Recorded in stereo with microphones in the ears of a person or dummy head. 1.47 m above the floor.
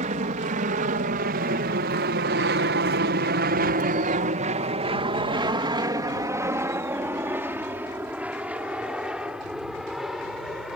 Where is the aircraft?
40° right (ahead or behind); by 10.8 s 5° right (ahead or behind).